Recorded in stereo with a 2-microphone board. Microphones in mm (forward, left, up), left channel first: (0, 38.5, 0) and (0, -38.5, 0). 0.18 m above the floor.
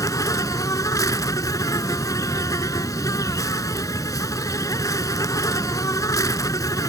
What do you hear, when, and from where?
0.0 s an insect: 50° left (ahead or behind)